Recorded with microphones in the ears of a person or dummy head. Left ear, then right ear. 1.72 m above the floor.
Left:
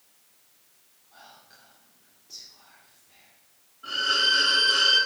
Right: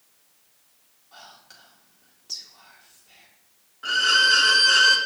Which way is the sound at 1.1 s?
65° right (ahead or behind).